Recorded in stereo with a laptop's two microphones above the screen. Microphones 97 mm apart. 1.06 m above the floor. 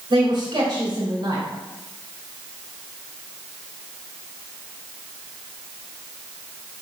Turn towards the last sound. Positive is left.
turn(degrees=-70)  # may be behind; listen again after turning